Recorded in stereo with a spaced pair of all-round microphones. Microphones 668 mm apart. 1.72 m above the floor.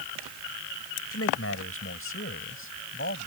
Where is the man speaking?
20° left (ahead or behind); by 3.3 s 15° left (ahead or behind).